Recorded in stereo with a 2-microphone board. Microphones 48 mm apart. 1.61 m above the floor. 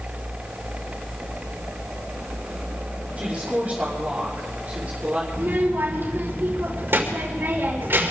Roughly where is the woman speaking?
Right.